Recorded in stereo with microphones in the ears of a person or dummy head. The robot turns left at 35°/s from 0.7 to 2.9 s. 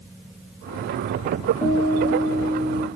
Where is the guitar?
170° left, 1.0 m; by 2.9 s 130° left, 1.0 m.